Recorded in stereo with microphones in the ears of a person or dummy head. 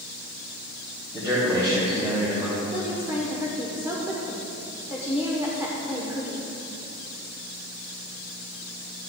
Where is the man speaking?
15° right (ahead or behind), 3 m.